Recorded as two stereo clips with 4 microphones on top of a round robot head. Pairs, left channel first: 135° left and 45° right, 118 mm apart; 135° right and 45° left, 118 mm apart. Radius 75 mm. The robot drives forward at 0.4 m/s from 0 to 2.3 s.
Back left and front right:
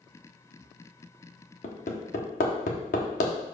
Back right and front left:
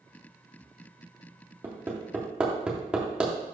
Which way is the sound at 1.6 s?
115° left.